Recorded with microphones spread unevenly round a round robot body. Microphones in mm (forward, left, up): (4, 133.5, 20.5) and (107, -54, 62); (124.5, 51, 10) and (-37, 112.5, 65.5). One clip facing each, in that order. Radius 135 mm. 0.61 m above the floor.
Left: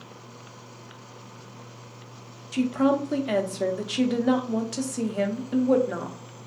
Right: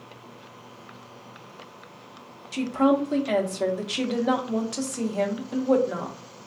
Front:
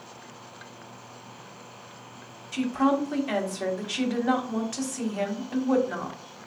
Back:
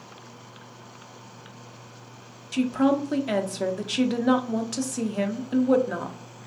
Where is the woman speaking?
150° left, 0.6 m.